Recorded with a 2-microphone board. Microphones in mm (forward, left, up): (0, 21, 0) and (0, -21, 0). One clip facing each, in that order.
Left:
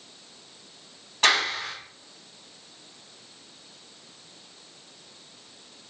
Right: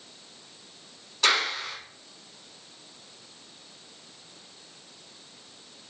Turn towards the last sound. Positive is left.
turn(degrees=45)  # may be behind; listen again after turning